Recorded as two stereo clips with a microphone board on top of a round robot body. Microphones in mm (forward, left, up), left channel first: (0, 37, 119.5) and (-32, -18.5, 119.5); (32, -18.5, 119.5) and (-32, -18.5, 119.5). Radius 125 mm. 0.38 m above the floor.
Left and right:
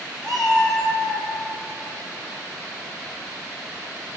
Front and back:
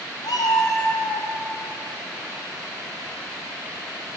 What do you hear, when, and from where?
0.2 s a cat meowing: 25° right, 2.0 m; by 1.3 s 40° right, 2.5 m